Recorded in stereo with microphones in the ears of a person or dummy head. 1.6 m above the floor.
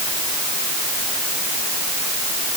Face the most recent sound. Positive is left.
No sound to turn to.